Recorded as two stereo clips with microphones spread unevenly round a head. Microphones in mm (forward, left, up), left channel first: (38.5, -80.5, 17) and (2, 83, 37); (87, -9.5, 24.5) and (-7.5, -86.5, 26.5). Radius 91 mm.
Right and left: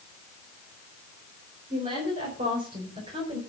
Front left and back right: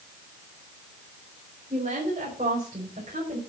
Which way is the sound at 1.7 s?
160° left.